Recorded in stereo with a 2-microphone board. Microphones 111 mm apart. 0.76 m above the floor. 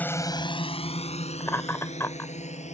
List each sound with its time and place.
0.0 s a drone: 15° left (ahead or behind); by 2.7 s 85° left
1.4 s laughter: 25° left (ahead or behind)